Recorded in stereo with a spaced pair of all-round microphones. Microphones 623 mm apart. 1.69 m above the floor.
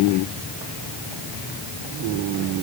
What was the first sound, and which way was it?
Only background noise.